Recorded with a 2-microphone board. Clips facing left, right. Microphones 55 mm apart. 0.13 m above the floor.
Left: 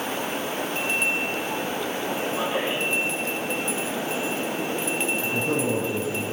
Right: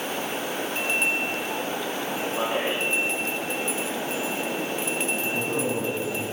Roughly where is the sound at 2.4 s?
Right.